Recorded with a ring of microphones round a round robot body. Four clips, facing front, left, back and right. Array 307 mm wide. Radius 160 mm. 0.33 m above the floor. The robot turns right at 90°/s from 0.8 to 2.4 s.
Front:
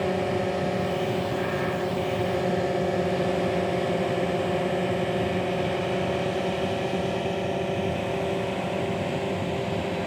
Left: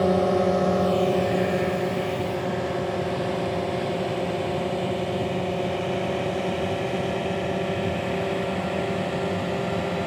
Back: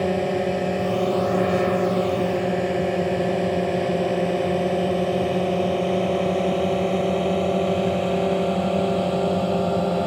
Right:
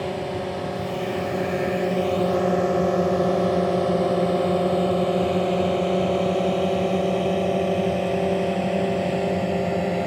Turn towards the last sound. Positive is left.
turn(degrees=-150)